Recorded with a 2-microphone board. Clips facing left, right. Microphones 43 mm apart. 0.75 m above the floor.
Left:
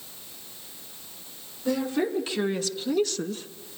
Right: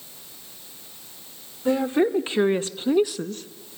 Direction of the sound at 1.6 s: 30° right (ahead or behind).